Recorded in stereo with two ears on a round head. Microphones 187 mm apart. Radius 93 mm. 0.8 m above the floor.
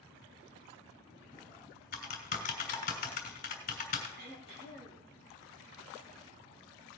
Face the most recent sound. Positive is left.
turn(degrees=-50)  # may be behind; listen again after turning